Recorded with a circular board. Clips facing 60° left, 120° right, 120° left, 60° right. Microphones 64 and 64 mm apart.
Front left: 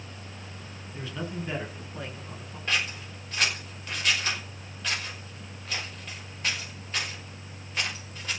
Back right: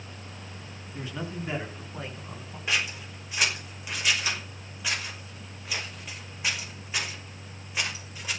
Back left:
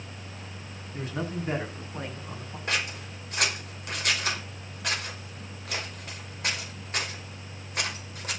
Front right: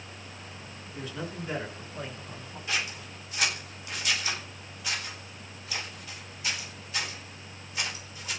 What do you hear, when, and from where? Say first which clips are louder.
0.9 s a man speaking: even, back left 4 dB; 165° left, 9.5 m; by 2.6 s 170° left, 10.5 m
2.7 s scissors: even, back left 2 dB; 155° left, 5.5 m